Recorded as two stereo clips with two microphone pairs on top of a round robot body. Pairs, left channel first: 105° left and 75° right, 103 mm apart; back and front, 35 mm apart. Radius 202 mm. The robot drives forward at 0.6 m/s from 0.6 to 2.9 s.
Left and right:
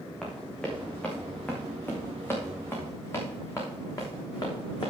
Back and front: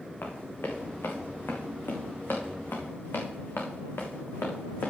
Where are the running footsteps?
170° right, 3 m; by 4.9 s 155° left, 2.5 m.